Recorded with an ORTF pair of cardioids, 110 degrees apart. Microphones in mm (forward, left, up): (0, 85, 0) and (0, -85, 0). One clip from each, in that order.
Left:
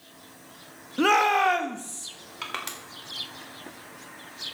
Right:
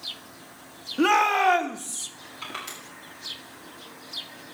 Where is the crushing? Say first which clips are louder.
Left 2 dB; 60° left, 3.5 m.